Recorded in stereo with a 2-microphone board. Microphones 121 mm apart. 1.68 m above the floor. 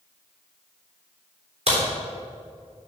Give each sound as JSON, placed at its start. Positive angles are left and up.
{"t": 1.7, "sound": "a crack", "side_deg": -55, "distance_m": 3.5}